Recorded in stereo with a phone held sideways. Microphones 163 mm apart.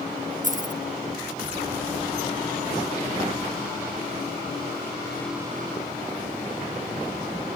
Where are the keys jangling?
50° right (ahead or behind), 0.7 m.